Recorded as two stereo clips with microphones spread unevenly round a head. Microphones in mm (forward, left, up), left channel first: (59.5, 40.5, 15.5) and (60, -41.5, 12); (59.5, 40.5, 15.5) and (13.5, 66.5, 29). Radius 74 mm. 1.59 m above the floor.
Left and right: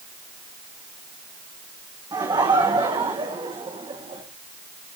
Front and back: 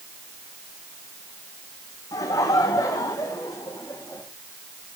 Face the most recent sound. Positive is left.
turn(degrees=-80)